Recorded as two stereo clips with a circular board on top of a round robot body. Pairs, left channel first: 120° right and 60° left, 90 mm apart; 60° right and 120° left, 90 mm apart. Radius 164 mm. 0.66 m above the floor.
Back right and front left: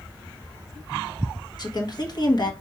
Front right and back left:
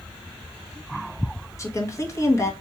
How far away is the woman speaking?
About 1.3 m.